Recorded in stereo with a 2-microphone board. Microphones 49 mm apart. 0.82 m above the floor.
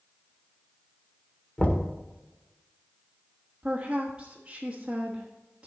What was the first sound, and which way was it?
Knocking, 25° left (ahead or behind).